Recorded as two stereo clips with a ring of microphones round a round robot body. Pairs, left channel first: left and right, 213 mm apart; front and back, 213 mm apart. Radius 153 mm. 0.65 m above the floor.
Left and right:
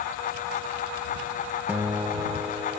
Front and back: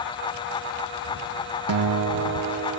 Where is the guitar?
175° right.